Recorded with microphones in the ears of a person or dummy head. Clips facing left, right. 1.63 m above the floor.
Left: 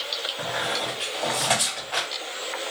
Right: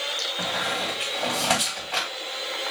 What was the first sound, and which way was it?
A squeak, 5° right (ahead or behind).